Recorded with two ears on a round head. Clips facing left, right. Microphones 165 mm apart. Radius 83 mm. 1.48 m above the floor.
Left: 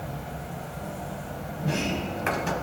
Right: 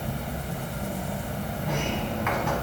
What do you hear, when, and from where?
0.0 s an insect: 45° right (ahead or behind), 0.9 m
1.6 s a sliding door: 40° left (ahead or behind), 0.7 m